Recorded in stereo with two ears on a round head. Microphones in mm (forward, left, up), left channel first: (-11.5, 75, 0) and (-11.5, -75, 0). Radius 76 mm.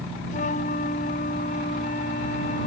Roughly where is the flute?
Left.